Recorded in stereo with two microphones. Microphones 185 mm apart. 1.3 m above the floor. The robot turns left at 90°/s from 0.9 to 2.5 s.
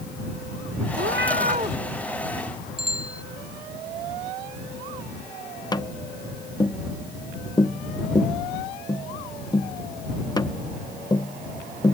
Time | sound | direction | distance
1.0 | a cat meowing | 85° right | ?
2.8 | a bicycle bell | 35° right (ahead or behind) | ?
5.7 | tapping | 20° left (ahead or behind) | ?